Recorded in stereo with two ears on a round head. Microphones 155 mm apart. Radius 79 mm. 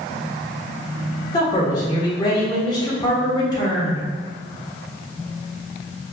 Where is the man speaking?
25° left (ahead or behind), 1.1 m.